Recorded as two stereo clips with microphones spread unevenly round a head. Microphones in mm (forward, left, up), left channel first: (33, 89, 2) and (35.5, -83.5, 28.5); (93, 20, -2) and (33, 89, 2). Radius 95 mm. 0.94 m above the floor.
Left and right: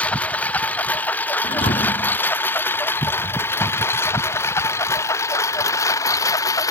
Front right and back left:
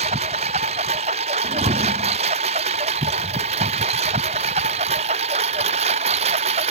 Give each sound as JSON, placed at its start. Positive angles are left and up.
{"t": 0.0, "sound": "a lawn mower", "azimuth_deg": 175}
{"t": 1.4, "sound": "a thud", "azimuth_deg": 155}